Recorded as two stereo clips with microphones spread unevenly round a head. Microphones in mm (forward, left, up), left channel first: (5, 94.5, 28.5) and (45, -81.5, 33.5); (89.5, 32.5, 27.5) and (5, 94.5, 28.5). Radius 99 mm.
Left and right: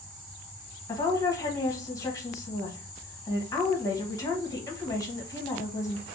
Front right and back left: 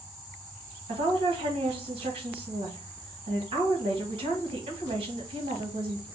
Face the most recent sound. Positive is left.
turn(degrees=170)